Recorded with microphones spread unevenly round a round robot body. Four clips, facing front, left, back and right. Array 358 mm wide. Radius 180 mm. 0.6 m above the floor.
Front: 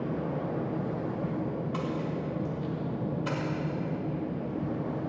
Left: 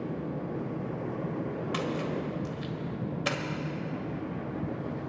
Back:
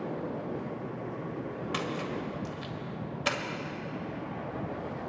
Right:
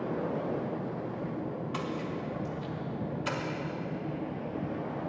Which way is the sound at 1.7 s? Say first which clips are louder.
Left 5 dB, front 2 dB; 150° left.